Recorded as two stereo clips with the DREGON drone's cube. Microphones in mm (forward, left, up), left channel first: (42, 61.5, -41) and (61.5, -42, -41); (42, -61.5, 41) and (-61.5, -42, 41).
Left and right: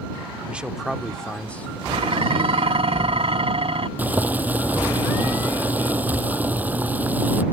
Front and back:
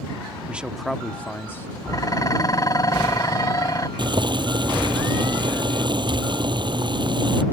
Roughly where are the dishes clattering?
Ahead right.